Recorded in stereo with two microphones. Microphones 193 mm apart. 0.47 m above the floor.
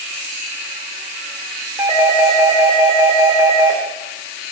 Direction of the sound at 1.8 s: 20° right (ahead or behind).